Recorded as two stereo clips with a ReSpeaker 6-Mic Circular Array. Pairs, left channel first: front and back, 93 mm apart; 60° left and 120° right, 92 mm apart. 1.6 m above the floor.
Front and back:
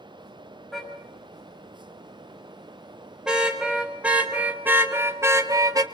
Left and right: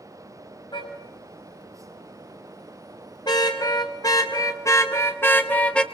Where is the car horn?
90° left, 5.5 m; by 5.8 s 140° left, 1.7 m.